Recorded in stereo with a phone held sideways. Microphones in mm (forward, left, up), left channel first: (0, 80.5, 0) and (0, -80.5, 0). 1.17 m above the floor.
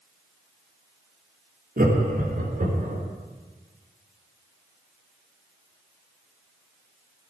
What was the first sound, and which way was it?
Laughter, 75° right (ahead or behind).